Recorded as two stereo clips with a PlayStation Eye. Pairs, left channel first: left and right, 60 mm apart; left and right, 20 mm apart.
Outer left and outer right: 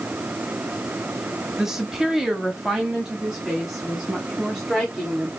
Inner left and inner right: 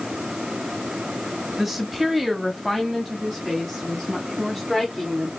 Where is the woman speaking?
10° right (ahead or behind), 1.0 m; by 5.3 s 5° right (ahead or behind), 2 m.